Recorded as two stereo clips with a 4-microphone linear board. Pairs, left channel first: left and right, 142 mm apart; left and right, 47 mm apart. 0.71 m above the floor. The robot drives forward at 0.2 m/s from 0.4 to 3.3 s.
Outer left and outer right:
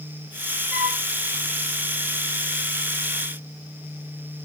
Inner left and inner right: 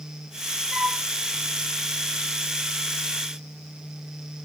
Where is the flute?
10° right (ahead or behind), 3 m.